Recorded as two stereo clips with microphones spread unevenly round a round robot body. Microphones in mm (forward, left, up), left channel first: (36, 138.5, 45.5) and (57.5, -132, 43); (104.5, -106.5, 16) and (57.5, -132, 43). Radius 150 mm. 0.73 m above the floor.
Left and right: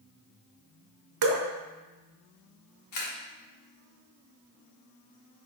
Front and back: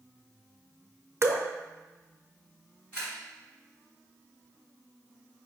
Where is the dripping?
110° right, 0.6 m.